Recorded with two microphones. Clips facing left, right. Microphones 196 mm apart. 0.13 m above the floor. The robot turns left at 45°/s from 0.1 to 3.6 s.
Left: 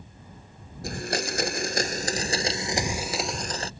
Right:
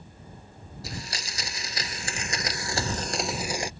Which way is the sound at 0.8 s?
110° left.